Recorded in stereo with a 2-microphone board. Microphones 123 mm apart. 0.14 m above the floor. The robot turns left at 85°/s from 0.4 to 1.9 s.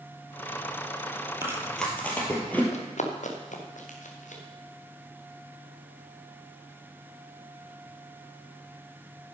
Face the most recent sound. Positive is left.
turn(degrees=85)